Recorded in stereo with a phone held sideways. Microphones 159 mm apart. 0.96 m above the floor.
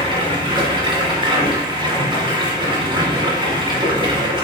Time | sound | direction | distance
0.0 | running water | 35° right (ahead or behind) | 1.7 m